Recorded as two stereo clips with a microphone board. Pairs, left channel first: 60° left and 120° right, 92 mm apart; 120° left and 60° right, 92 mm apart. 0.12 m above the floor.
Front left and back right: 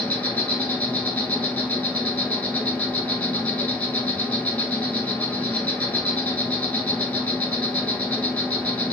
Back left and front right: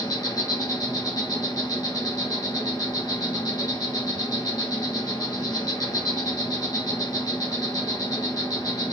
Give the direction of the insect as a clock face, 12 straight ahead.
8 o'clock.